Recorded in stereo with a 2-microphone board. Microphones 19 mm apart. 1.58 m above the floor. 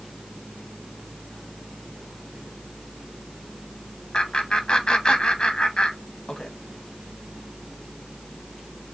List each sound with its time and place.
4.1 s laughter: 40° left (ahead or behind), 1.5 m